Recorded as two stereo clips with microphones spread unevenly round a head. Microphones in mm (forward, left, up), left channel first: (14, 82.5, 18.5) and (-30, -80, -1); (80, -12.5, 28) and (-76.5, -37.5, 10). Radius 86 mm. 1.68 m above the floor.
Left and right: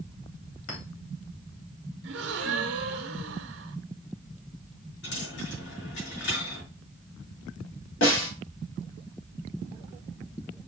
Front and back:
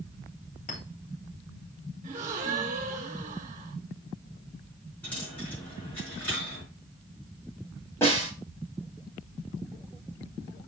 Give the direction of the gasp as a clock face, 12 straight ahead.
4 o'clock.